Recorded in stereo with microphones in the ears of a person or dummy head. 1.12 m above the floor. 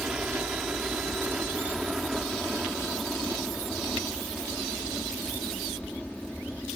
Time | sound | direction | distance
0.0 | a helicopter | 5° right (ahead or behind) | ?